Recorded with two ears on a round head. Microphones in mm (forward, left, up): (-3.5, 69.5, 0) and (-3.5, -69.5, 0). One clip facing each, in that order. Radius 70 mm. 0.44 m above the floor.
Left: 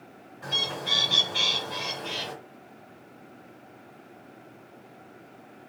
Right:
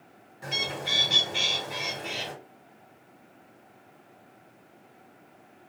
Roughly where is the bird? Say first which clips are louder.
Even; right.